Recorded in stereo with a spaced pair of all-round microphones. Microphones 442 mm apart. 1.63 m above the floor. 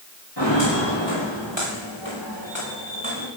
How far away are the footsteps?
About 7 m.